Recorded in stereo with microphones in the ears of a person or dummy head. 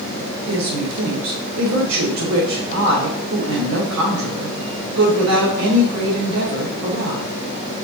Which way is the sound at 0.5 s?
85° right.